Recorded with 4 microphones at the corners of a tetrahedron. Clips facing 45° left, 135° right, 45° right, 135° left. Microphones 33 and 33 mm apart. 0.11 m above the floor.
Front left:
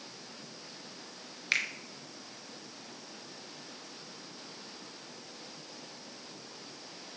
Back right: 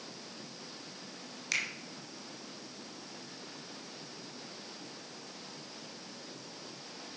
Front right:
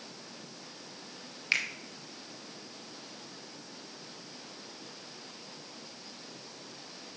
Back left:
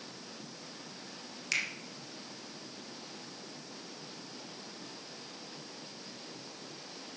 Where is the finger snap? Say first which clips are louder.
Front left 3 dB, front right 3 dB; straight ahead, 1.4 m.